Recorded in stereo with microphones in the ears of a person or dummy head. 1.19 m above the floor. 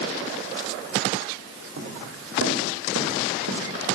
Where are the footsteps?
75° right (ahead or behind), 5.5 m; by 4.0 s 70° right (ahead or behind), 3.5 m.